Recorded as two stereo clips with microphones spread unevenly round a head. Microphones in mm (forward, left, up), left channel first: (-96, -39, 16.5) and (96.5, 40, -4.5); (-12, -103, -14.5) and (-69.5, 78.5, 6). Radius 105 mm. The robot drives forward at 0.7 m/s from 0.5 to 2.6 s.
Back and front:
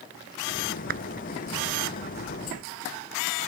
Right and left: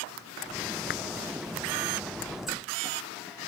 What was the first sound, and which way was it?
A clap, 25° right.